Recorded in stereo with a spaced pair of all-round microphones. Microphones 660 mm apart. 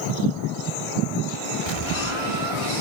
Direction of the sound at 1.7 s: 55° right (ahead or behind).